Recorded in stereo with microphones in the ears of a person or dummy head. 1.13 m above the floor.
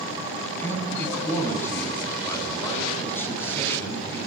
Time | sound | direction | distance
0.6 | a man speaking | 15° left (ahead or behind) | 9.5 m